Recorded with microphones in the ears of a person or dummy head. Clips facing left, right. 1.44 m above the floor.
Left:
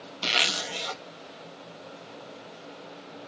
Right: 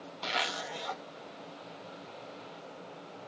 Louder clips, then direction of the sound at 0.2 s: Left 3 dB; 35° left (ahead or behind).